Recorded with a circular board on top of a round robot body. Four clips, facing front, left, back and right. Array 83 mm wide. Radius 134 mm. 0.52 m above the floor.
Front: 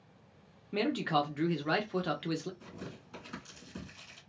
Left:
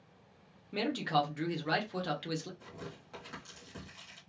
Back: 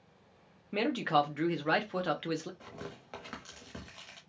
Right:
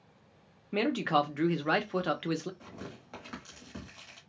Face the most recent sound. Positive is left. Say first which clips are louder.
# right 2 dB, back 1 dB
turn(degrees=-160)